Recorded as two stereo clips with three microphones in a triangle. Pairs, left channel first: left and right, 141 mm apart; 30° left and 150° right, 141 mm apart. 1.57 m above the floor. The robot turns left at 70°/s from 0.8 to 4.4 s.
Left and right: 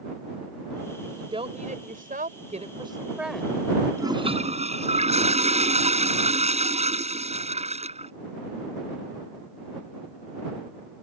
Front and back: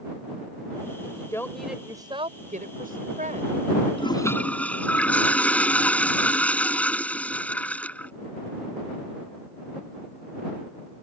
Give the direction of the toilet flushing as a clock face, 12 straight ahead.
1 o'clock.